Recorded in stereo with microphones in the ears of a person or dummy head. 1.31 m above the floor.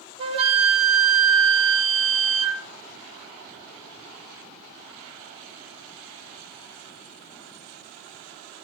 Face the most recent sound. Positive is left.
turn(degrees=-35)  # may be behind; listen again after turning